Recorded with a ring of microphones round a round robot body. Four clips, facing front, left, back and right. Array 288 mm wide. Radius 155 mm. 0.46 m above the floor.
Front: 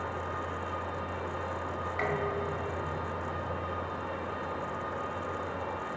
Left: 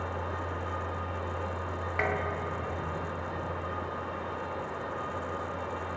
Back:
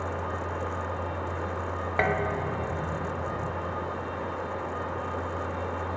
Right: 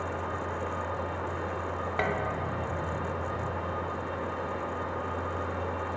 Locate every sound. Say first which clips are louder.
2.0 s dishes clattering: even, back 5 dB; 170° right, 2.5 m